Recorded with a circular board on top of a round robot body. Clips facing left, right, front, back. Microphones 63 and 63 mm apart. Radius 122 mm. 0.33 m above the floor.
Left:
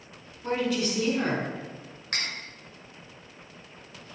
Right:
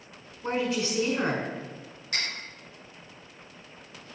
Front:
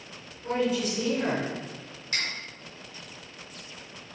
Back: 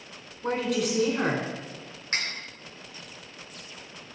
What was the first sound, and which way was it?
A woman speaking, 160° right.